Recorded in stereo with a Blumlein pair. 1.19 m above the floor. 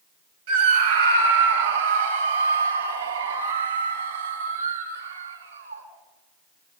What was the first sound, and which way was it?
A scream, 55° right.